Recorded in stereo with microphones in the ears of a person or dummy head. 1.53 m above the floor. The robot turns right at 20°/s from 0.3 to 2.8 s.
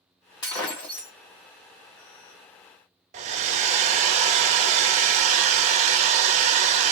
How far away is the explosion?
No explosion in this recording.